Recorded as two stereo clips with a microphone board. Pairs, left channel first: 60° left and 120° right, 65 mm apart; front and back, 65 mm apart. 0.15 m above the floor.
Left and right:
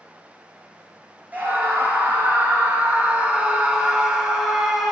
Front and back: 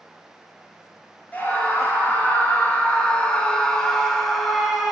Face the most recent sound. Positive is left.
turn(degrees=165)